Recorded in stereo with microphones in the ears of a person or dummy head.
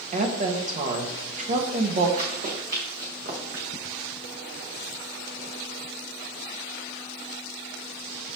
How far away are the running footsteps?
About 5 m.